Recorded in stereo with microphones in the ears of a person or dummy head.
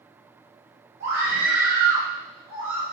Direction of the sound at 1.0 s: 60° right (ahead or behind).